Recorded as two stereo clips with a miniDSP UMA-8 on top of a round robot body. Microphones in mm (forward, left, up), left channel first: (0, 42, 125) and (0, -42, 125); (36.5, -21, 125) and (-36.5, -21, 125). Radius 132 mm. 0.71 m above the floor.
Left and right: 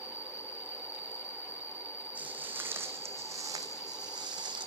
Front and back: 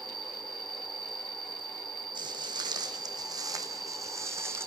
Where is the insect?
160° right, 6 m.